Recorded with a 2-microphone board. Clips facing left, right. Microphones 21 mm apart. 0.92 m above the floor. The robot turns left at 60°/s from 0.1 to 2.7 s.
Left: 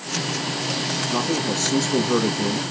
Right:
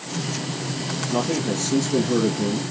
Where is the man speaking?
170° left, 1.2 m; by 2.6 s 80° left, 1.2 m.